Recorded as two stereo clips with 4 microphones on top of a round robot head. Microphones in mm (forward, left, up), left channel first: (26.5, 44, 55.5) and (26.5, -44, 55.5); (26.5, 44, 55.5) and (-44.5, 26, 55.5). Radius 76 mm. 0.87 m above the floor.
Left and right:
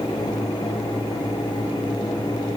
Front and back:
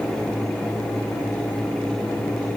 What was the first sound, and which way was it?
Only background noise.